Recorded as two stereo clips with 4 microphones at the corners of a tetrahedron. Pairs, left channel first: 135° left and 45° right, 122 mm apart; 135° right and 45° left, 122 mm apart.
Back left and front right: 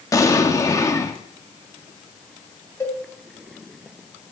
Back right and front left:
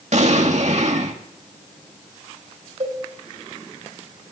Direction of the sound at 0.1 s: 70° left.